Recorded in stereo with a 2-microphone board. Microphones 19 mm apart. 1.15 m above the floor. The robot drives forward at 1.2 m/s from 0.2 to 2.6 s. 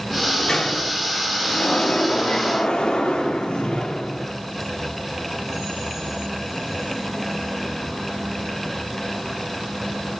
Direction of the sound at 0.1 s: 40° left (ahead or behind).